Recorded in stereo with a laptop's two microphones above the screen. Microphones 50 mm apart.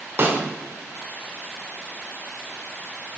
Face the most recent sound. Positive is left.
turn(degrees=-45)  # may be behind; listen again after turning